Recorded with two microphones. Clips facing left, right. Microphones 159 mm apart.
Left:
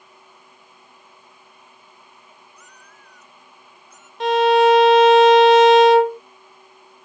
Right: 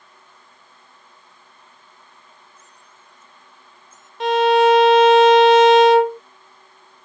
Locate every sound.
2.6 s a cat meowing: 80° left; by 4.1 s 75° left (ahead or behind)
4.2 s a violin: centre (ahead or behind)